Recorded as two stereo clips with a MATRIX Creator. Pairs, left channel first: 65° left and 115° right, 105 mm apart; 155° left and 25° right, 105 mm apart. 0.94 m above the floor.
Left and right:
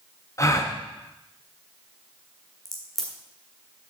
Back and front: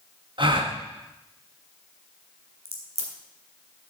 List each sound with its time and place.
0.4 s a gasp: 10° left, 1.3 m
2.6 s a crack: 20° right, 2.5 m